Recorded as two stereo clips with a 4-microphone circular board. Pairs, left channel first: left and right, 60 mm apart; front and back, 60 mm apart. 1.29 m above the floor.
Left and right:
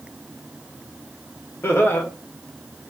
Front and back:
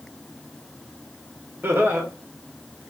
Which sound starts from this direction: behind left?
Laughter, at 1.6 s.